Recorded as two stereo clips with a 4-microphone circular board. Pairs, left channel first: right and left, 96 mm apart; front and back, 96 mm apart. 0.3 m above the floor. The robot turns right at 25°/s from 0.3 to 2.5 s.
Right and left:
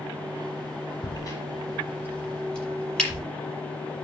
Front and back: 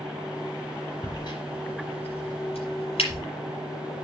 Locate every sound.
1.0 s a crack: 45° right, 5.5 m; by 3.2 s 10° right, 5.5 m